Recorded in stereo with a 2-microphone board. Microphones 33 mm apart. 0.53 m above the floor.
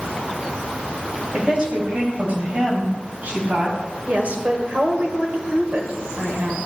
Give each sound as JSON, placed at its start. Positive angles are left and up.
{"t": 1.3, "sound": "a woman speaking", "side_deg": -30, "distance_m": 2.5}
{"t": 4.1, "sound": "a woman speaking", "side_deg": -50, "distance_m": 2.0}